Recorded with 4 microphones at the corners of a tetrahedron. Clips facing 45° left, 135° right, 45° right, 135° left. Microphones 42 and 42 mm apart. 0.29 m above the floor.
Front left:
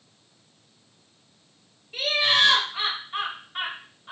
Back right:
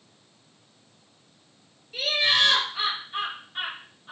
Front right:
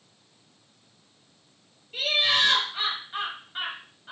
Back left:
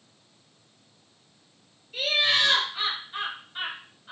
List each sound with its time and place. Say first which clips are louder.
1.9 s laughter: front left 1 dB, even; 10° right, 1.5 m